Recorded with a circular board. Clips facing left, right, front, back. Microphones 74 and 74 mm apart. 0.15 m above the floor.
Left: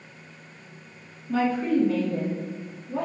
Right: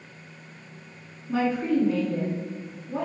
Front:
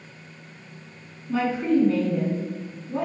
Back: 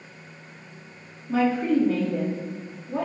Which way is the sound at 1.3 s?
140° right.